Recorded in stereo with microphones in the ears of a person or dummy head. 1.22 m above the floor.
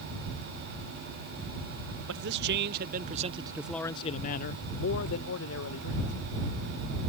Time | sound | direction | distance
2.1 | a man speaking | 60° right (ahead or behind) | ?